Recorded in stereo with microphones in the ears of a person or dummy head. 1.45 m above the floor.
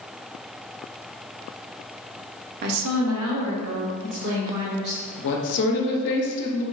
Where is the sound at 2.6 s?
55° right (ahead or behind), 0.5 m; by 5.0 s 60° right (ahead or behind), 2 m.